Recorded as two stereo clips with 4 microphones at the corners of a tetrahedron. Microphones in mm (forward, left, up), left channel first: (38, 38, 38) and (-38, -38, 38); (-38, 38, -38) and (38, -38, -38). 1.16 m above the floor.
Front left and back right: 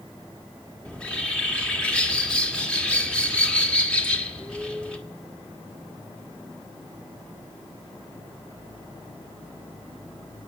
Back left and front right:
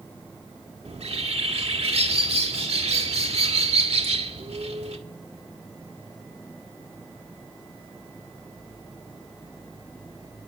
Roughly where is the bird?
Ahead right.